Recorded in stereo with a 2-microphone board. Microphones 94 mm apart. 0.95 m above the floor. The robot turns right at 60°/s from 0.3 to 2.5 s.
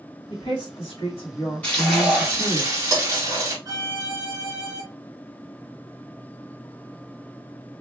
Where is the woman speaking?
60° left, 1.7 m; by 2.6 s 165° right, 1.7 m.